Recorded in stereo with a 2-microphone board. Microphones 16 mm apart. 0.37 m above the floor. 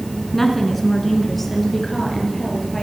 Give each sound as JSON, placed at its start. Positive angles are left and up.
{"t": 0.3, "sound": "a woman speaking", "side_deg": 5, "distance_m": 4.5}